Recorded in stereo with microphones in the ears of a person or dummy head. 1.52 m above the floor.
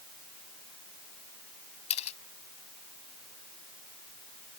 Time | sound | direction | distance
1.9 | a camera shutter | 35° left (ahead or behind) | ?